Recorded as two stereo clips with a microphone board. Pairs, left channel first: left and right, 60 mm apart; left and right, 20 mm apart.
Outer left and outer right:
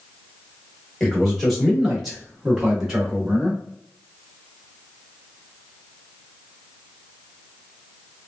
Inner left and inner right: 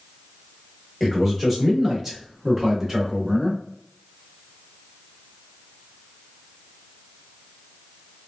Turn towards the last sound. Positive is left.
turn(degrees=-15)  # may be behind; listen again after turning